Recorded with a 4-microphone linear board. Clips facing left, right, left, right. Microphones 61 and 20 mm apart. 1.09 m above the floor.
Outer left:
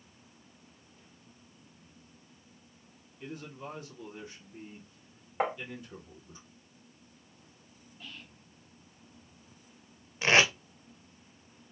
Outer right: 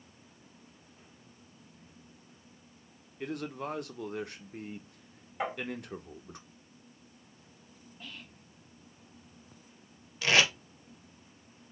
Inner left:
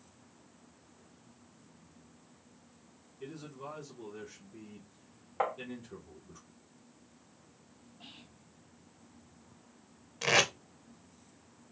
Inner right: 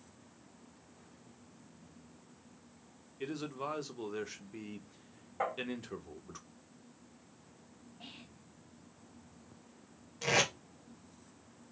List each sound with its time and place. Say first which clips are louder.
3.2 s a man speaking: outer right 6 dB, inner right 6 dB; 65° right (ahead or behind), 0.7 m
5.4 s tapping: outer left 4 dB, inner left 3 dB; 45° left (ahead or behind), 1.6 m
8.0 s whispering: outer right 1 dB, inner right 1 dB; 20° right (ahead or behind), 1.0 m
10.2 s tape being pulled: outer left 2 dB, inner left 3 dB; 25° left (ahead or behind), 0.8 m